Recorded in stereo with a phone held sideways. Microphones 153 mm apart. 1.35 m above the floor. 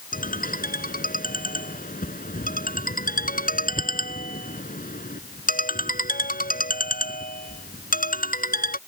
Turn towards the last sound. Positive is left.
turn(degrees=65)  # may be behind; listen again after turning